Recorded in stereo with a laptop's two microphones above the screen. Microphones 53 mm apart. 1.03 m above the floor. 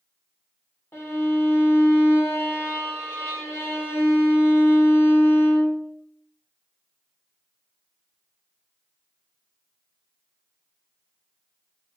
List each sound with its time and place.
0.9 s a violin: 55° left (ahead or behind), 1.7 m